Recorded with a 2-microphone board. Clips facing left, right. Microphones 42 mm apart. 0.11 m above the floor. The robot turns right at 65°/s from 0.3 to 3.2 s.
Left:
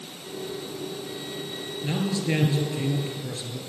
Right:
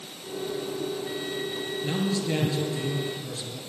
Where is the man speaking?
20° left, 2 m; by 3.6 s 110° left, 2 m.